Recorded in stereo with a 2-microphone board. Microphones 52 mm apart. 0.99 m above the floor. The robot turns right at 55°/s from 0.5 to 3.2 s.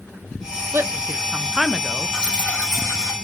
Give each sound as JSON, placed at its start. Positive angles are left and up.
{"t": 0.7, "sound": "a woman speaking", "side_deg": -45, "distance_m": 0.7}
{"t": 2.1, "sound": "dripping", "azimuth_deg": 15, "distance_m": 2.5}